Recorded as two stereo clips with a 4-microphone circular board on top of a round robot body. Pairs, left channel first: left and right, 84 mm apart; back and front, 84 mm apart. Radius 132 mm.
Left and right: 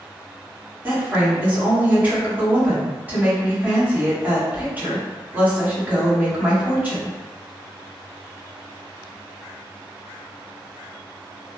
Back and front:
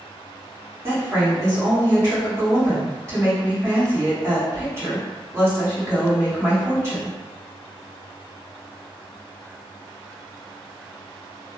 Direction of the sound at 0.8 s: 30° right.